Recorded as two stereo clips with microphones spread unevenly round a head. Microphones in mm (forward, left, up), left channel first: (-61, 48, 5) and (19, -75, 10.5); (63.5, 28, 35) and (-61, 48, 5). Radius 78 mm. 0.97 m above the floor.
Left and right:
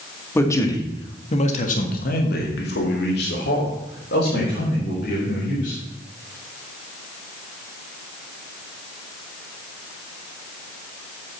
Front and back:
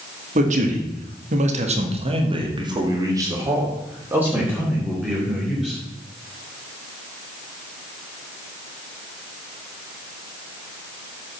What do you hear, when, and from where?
0.3 s a man speaking: 165° right, 2 m; by 5.8 s 85° left, 4.5 m